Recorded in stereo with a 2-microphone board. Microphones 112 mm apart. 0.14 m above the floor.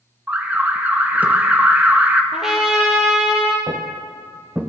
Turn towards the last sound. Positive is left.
turn(degrees=-5)  # may be behind; listen again after turning